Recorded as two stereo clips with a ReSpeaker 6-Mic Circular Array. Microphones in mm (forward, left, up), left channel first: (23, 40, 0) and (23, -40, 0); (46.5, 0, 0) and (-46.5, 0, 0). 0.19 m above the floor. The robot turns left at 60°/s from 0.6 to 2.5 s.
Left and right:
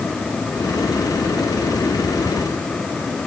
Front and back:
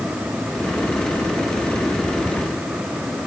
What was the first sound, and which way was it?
Only background noise.